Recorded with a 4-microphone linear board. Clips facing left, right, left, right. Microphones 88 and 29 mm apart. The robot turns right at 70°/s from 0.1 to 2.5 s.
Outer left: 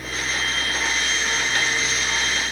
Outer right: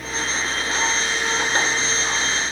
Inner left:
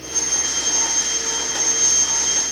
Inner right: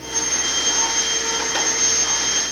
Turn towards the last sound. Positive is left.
No sound to turn to.